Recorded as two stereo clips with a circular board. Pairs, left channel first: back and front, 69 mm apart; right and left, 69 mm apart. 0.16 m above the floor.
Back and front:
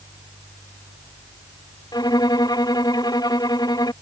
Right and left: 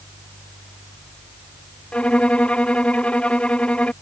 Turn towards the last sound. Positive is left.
turn(degrees=-165)